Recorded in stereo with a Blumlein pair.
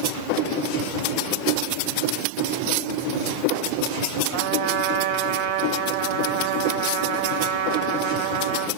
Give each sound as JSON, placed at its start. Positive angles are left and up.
{"t": 4.3, "sound": "a trumpet", "azimuth_deg": -55, "distance_m": 2.0}